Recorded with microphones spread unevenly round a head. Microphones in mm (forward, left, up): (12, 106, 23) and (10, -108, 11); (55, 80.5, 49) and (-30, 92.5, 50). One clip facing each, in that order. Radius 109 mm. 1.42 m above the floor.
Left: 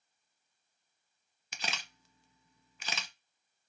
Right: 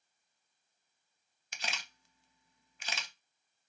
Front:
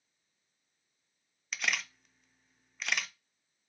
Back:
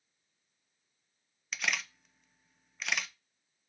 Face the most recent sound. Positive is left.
turn(degrees=85)